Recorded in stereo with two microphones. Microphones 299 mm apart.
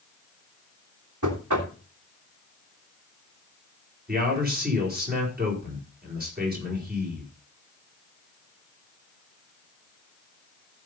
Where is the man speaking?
30° right (ahead or behind), 5.5 m.